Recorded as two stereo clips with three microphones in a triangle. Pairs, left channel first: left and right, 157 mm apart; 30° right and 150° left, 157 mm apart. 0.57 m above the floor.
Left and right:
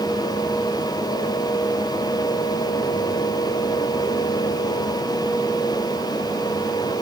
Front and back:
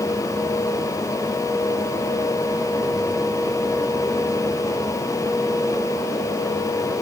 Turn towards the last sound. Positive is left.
No sound to turn to.